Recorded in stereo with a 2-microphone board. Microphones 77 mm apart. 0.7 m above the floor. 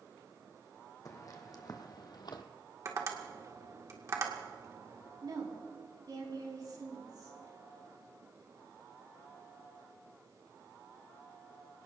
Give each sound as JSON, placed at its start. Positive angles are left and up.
{"t": 1.1, "sound": "footsteps", "side_deg": 45, "distance_m": 2.0}
{"t": 2.9, "sound": "tapping", "side_deg": -40, "distance_m": 1.9}
{"t": 5.2, "sound": "a woman speaking", "side_deg": -60, "distance_m": 5.0}